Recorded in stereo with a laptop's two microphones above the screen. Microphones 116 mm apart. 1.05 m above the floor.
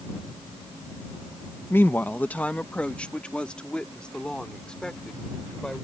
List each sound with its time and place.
1.7 s a woman speaking: 20° left (ahead or behind); by 5.8 s 5° left (ahead or behind)